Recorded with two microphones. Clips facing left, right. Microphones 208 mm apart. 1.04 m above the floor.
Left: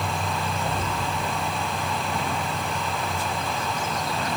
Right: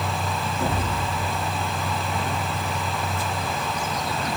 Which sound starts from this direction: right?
An explosion, at 0.6 s.